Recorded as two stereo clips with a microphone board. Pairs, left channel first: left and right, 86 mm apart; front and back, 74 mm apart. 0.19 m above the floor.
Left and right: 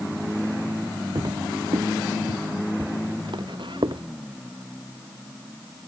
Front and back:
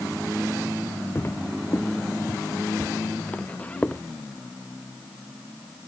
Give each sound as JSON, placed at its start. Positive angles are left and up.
{"t": 1.1, "sound": "footsteps", "azimuth_deg": -55}